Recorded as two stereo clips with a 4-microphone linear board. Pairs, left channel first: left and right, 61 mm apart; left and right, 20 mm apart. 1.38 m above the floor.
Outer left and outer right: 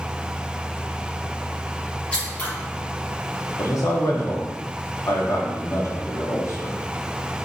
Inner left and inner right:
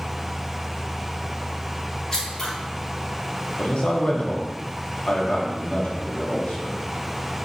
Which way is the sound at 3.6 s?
60° left (ahead or behind).